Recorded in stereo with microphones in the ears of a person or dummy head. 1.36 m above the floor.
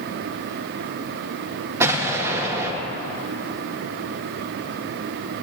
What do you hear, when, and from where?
1.8 s an explosion: 15° right (ahead or behind), 1.3 m